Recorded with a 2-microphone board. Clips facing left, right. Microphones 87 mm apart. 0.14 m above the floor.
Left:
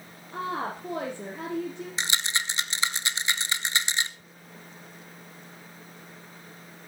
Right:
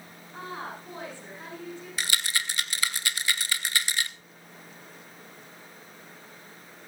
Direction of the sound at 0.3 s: 70° left (ahead or behind).